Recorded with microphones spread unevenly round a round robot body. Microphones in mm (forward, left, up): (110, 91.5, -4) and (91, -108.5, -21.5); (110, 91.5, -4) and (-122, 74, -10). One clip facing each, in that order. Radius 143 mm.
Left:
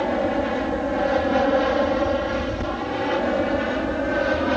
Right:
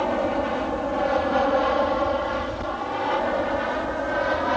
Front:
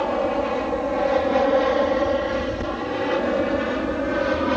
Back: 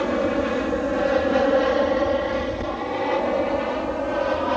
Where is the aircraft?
150° left; by 4.6 s 50° left.